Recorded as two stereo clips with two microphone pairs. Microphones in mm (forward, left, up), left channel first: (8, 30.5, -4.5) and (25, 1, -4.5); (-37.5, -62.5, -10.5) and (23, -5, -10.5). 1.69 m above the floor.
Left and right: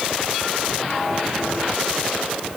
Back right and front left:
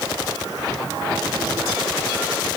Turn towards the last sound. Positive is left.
No sound to turn to.